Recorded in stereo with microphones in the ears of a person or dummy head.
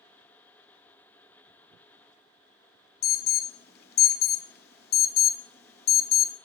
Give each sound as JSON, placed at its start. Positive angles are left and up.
{"t": 3.0, "sound": "an alarm", "side_deg": 50, "distance_m": 0.6}